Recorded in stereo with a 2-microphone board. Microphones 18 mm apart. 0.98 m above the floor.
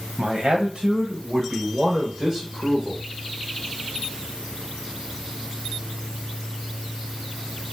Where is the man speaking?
65° right (ahead or behind), 0.9 m; by 3.0 s 20° right (ahead or behind), 1.7 m.